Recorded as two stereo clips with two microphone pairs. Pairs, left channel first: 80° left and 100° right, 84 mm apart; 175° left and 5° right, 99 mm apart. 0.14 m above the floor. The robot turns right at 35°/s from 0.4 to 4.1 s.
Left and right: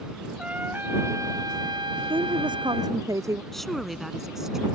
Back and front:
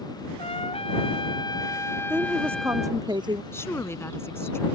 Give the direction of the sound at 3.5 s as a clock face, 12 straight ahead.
7 o'clock.